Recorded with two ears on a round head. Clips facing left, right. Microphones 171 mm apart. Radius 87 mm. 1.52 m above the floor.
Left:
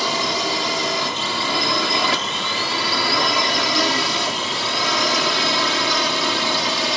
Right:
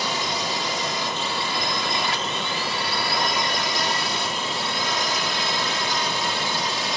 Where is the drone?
60° left (ahead or behind); by 7.0 s 55° left (ahead or behind).